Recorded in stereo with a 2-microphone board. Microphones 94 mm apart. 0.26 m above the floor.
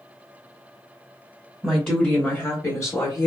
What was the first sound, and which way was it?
A woman speaking, 5° left (ahead or behind).